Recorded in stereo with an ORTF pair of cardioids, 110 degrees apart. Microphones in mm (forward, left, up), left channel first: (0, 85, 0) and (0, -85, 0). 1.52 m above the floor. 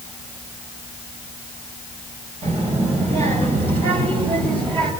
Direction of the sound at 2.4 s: 45° right.